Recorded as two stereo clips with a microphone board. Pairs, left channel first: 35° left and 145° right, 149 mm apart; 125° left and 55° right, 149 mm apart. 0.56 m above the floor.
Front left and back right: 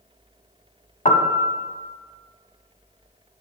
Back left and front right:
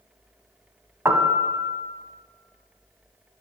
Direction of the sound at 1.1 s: 15° left.